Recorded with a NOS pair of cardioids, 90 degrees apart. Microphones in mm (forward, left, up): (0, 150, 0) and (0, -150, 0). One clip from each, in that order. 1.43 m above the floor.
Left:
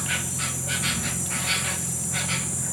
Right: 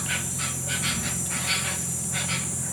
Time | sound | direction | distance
0.0 | an insect | 10° left | ?